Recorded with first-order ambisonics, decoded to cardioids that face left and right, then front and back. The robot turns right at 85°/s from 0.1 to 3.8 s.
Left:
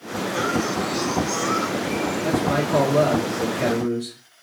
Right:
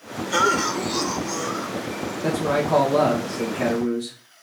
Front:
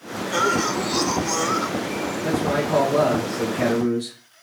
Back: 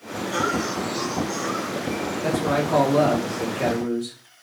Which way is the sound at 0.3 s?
80° right.